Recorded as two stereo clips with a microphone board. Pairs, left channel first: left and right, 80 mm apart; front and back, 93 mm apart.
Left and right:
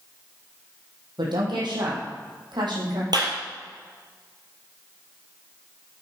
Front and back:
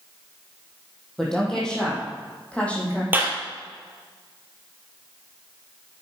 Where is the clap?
110° right, 3 m.